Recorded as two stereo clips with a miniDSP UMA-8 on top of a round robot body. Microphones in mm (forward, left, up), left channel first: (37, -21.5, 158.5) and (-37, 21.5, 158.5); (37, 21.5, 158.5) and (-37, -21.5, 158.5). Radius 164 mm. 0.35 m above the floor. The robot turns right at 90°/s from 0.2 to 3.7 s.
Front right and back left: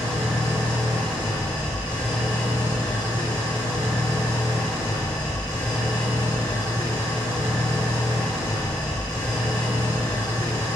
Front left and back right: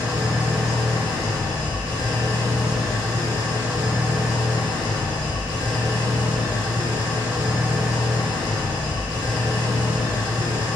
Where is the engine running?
65° left, 1.8 m; by 10.8 s 20° left, 1.8 m.